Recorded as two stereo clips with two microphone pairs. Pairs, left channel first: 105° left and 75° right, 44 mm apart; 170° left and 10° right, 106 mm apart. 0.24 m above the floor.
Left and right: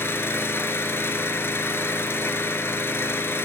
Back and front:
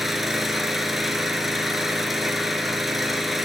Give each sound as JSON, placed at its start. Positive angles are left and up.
{"t": 0.0, "sound": "an engine running", "azimuth_deg": 80, "distance_m": 0.9}